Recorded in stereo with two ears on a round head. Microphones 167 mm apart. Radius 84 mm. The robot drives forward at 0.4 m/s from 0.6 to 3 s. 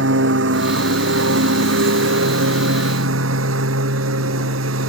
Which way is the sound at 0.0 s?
70° right (ahead or behind).